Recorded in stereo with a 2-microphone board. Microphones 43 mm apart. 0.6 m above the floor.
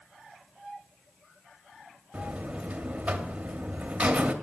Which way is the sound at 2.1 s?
30° right (ahead or behind).